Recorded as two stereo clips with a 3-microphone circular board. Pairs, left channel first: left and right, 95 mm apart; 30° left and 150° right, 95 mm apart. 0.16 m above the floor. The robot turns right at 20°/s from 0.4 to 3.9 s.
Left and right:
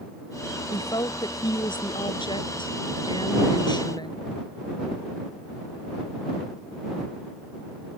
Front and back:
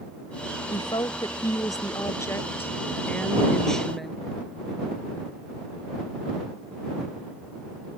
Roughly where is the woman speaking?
Ahead left.